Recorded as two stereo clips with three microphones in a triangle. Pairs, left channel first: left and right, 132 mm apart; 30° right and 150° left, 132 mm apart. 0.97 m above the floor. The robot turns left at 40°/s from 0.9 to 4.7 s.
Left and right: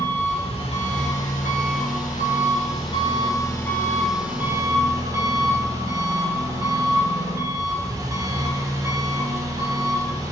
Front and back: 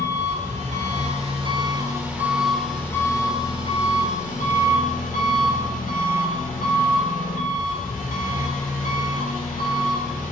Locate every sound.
0.0 s an engine running: 125° left, 2 m; by 10.3 s 25° right, 2 m